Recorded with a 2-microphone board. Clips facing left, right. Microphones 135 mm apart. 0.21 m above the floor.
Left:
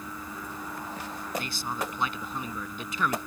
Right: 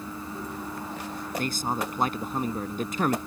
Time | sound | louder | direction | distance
1.4 | a man speaking | right 5 dB | 45° right (ahead or behind) | ?